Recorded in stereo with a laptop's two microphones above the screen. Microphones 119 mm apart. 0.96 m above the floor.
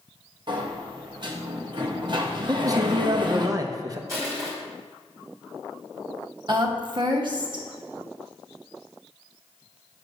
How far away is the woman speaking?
About 1.0 m.